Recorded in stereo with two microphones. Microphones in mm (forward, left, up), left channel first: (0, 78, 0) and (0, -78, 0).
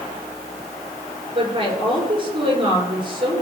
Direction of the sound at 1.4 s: 35° right (ahead or behind).